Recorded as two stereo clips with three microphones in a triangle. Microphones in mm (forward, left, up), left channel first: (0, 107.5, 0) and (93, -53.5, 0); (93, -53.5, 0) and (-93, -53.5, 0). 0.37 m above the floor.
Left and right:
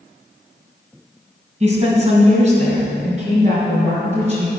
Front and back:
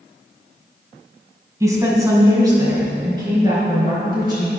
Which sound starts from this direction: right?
A woman speaking, at 1.6 s.